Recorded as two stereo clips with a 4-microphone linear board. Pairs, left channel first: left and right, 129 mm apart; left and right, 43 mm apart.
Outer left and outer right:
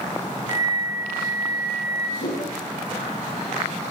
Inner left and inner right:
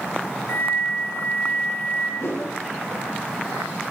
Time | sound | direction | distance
0.5 | a flute | 50° left (ahead or behind) | 1.8 m
2.2 | a whoosh | 85° left | 4.5 m